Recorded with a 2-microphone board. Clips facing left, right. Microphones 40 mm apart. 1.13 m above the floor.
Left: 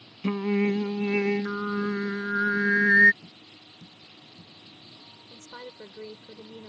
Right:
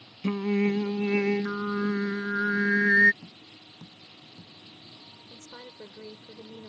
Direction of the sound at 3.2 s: 65° right (ahead or behind).